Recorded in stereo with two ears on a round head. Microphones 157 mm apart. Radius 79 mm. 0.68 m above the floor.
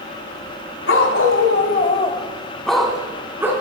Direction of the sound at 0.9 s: 75° left (ahead or behind).